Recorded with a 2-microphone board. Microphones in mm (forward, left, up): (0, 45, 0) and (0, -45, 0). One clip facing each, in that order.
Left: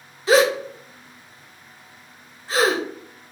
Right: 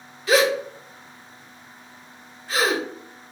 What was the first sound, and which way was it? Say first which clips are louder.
A gasp: left 3 dB; 30° left (ahead or behind).